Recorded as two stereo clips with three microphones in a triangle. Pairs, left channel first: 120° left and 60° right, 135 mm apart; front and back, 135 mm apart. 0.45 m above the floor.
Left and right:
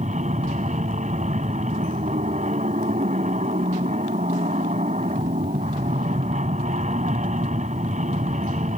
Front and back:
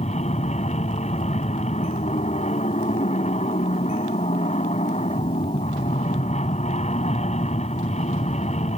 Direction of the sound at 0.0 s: 35° right.